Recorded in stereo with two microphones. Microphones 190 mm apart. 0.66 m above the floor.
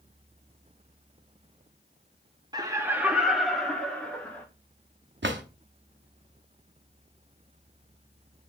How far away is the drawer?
About 0.7 m.